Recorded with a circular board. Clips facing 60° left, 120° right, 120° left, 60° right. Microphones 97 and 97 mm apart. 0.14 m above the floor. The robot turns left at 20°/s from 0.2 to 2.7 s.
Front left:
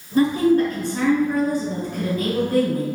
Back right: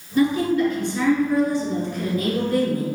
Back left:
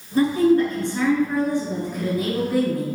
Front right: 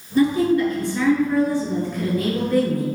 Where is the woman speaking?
85° left, 1.8 m; by 2.9 s 35° left, 1.8 m.